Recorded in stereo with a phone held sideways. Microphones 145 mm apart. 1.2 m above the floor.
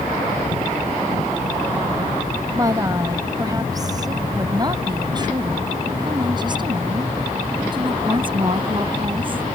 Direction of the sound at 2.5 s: 25° right (ahead or behind).